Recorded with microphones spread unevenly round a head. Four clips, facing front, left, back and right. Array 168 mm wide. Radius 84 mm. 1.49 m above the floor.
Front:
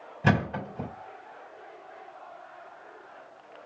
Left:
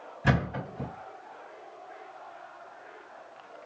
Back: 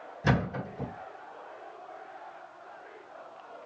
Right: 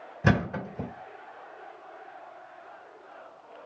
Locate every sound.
0.2 s a thud: 65° right, 2.5 m